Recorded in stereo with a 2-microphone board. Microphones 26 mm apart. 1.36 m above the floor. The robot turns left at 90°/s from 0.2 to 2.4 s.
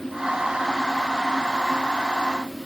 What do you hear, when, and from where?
Only background noise.